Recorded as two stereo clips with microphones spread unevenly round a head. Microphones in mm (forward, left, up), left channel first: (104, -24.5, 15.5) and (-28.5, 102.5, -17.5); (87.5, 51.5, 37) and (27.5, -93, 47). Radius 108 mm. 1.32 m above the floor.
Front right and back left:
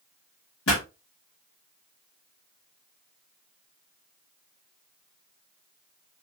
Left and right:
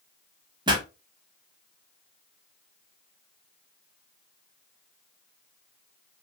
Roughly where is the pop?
Ahead right.